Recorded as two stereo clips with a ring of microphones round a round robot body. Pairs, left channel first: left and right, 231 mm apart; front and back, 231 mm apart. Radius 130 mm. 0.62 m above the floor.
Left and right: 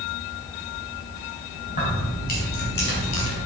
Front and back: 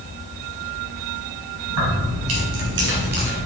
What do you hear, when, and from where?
1.7 s keys jangling: 155° left, 3.5 m; by 3.4 s 125° left, 2 m